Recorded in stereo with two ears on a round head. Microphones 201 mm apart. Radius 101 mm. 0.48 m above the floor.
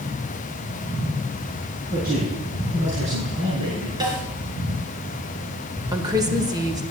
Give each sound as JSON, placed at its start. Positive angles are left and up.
{"t": 1.9, "sound": "a man speaking", "side_deg": -40, "distance_m": 4.0}
{"t": 4.0, "sound": "a snare drum", "side_deg": -20, "distance_m": 4.0}
{"t": 5.9, "sound": "a woman speaking", "side_deg": -20, "distance_m": 2.0}